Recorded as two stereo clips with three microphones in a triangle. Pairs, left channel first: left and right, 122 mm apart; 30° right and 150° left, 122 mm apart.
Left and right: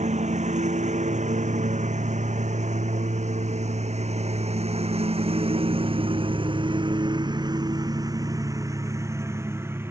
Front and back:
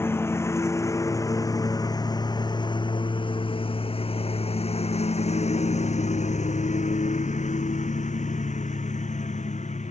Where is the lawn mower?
100° right; by 9.9 s 20° right.